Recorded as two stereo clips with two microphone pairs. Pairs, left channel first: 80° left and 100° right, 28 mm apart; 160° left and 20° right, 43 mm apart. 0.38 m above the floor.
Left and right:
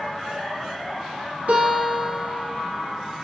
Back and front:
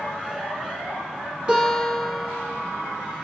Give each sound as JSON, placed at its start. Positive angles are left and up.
{"t": 1.5, "sound": "a guitar", "azimuth_deg": -90, "distance_m": 1.0}